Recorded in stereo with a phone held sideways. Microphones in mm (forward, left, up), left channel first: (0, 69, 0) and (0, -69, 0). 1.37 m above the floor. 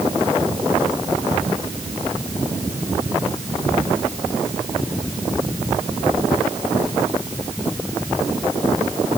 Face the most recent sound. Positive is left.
No sound to turn to.